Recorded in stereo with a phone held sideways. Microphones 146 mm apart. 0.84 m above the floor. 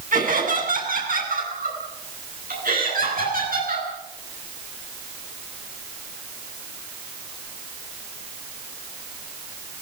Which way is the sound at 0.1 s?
70° right (ahead or behind).